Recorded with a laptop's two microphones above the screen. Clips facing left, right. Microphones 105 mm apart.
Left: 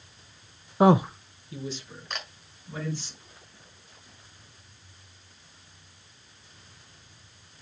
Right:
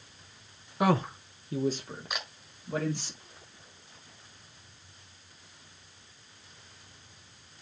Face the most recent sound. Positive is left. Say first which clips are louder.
# left 1 dB
turn(degrees=-10)  # may be behind; listen again after turning